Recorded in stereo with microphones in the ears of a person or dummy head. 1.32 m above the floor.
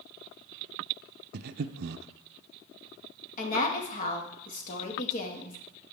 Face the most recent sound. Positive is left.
turn(degrees=50)  # may be behind; listen again after turning